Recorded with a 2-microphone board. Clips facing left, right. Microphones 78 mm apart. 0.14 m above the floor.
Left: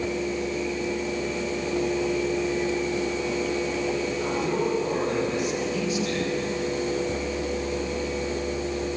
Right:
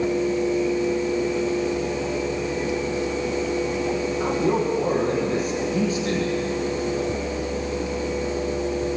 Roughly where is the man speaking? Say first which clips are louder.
Right 6 dB; right.